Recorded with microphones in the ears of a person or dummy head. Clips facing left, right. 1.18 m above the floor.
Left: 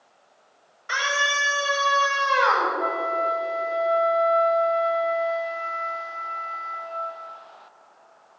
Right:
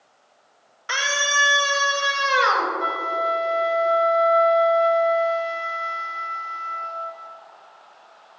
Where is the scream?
85° right, 4.5 m; by 2.7 s 45° right (ahead or behind), 4 m.